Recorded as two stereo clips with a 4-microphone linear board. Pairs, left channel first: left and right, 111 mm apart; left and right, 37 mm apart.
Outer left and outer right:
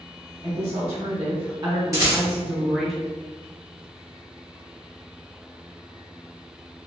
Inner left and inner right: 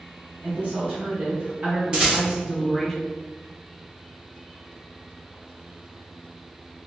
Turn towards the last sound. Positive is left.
turn(degrees=-25)  # may be behind; listen again after turning